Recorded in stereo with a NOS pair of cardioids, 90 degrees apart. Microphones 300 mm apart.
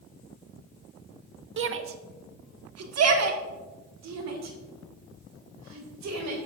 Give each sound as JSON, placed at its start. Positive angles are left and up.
{"t": 1.6, "sound": "a shout", "azimuth_deg": -40, "distance_m": 1.3}